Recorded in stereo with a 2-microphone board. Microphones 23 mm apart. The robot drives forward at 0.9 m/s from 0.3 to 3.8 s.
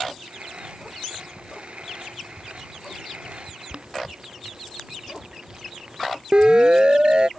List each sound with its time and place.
3.7 s boiling: 45° right (ahead or behind)
6.3 s a siren: 40° right (ahead or behind)